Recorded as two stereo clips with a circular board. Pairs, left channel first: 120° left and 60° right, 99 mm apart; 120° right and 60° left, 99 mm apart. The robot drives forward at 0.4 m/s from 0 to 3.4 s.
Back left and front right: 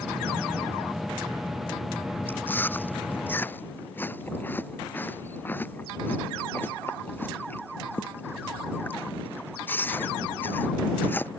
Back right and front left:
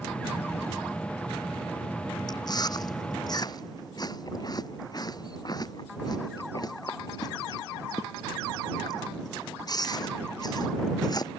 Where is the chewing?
170° right.